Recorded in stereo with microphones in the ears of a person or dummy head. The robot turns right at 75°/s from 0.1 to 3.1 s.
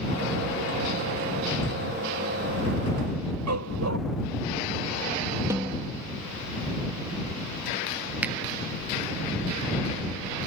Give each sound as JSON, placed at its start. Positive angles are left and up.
{"t": 3.5, "sound": "a dog barking", "side_deg": -85}
{"t": 5.5, "sound": "a snare drum", "side_deg": -15}
{"t": 8.2, "sound": "a finger snap", "side_deg": -5}